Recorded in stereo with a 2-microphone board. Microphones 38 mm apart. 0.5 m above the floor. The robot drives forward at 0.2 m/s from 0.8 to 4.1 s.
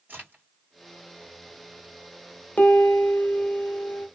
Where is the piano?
45° left (ahead or behind), 0.7 m; by 4.1 s 30° left (ahead or behind), 1.0 m.